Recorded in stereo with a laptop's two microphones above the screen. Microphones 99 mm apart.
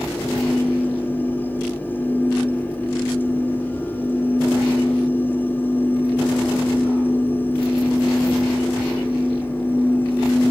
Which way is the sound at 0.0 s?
20° left (ahead or behind).